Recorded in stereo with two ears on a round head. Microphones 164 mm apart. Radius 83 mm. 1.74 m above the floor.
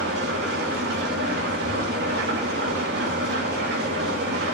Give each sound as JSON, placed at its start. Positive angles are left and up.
{"t": 0.0, "sound": "an engine running", "side_deg": -60, "distance_m": 3.0}